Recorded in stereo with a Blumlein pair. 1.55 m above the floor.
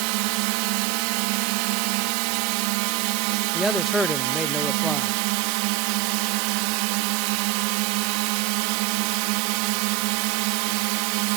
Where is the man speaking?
5° left.